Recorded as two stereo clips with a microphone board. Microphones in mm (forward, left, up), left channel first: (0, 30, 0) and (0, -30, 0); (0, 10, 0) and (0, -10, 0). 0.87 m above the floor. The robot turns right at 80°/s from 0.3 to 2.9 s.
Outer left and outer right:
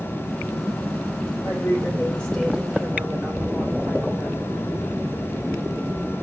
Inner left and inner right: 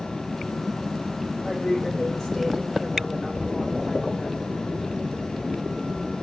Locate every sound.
1.4 s a woman speaking: 100° left, 3.5 m; by 4.5 s 145° right, 3.5 m